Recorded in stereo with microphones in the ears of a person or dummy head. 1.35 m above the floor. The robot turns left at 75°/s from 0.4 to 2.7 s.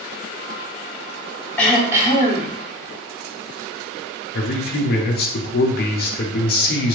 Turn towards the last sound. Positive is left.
turn(degrees=50)  # may be behind; listen again after turning